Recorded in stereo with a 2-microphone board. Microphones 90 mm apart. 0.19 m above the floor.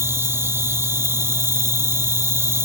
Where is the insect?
30° right (ahead or behind), 0.8 m.